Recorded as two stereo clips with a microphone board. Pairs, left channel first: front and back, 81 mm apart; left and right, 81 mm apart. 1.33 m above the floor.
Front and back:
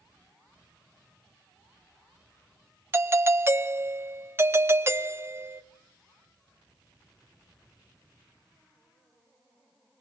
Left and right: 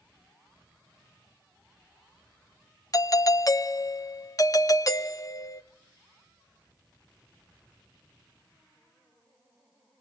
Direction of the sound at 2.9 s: 125° left.